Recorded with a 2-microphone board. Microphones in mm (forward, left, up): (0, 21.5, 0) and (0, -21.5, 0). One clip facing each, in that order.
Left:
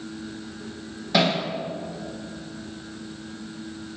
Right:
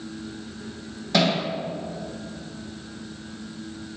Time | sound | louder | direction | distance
1.1 | hammering | even | 5° left (ahead or behind) | 8 m